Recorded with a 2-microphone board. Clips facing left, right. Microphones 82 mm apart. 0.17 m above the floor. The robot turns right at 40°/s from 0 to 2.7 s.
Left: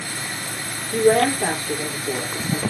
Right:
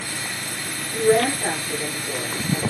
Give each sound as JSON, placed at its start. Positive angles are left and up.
{"t": 0.9, "sound": "a woman speaking", "azimuth_deg": 70, "distance_m": 4.5}